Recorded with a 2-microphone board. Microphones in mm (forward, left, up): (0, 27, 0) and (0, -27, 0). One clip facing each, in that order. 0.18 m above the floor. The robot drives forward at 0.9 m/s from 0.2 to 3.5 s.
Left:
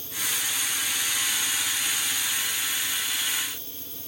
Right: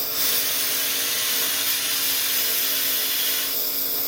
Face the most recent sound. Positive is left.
turn(degrees=-85)